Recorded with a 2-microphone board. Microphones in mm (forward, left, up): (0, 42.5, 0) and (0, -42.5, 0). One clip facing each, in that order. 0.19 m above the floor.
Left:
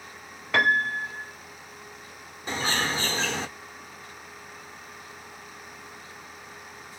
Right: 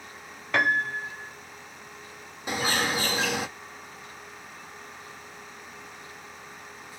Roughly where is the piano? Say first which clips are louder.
Left 2 dB; centre.